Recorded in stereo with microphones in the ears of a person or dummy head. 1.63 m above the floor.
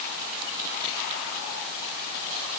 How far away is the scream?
No scream in this recording.